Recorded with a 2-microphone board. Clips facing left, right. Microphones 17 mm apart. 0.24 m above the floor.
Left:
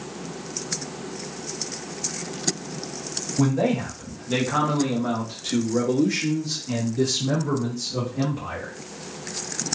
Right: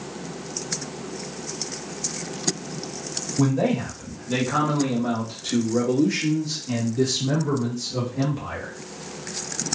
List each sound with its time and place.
3.4 s a man speaking: 10° left (ahead or behind), 1.3 m; by 8.7 s 5° left (ahead or behind), 2.5 m